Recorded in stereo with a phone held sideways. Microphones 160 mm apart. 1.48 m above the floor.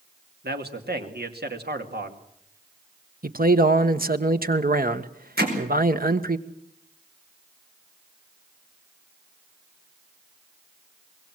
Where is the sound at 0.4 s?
85° right, 2.5 m.